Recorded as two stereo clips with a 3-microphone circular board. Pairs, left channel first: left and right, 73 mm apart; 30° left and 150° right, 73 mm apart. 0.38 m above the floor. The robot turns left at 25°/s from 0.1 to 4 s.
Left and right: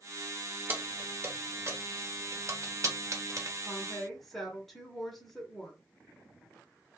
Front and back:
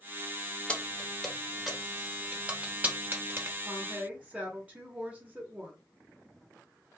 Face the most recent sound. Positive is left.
turn(degrees=170)